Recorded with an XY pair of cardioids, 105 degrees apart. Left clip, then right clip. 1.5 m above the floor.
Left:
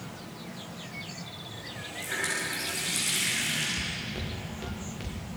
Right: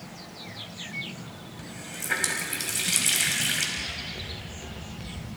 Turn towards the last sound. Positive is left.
turn(degrees=25)